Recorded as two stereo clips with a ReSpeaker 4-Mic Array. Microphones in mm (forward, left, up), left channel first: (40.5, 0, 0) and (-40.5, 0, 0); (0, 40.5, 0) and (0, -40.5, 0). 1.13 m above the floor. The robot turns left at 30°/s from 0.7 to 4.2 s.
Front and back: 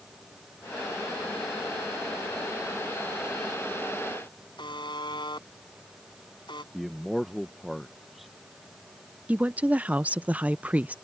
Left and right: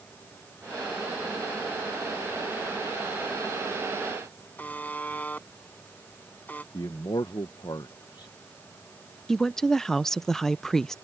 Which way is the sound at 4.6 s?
20° left.